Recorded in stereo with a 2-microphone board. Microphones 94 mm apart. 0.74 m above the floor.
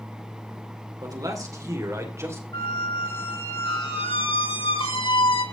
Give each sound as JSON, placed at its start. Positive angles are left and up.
{"t": 1.0, "sound": "a man speaking", "side_deg": -40, "distance_m": 2.5}
{"t": 2.5, "sound": "a squeak", "side_deg": 70, "distance_m": 1.8}